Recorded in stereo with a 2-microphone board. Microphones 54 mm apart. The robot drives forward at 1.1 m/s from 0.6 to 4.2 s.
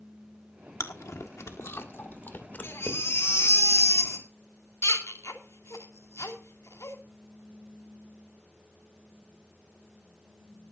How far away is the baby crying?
About 3 m.